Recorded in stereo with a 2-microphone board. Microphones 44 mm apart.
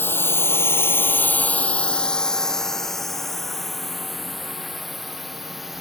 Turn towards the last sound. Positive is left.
turn(degrees=-5)  # may be behind; listen again after turning